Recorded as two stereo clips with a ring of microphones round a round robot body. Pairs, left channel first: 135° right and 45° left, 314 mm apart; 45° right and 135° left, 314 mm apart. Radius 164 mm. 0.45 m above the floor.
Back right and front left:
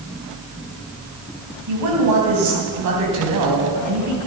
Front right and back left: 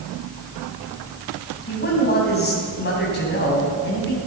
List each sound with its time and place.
1.7 s a woman speaking: 15° left, 3.5 m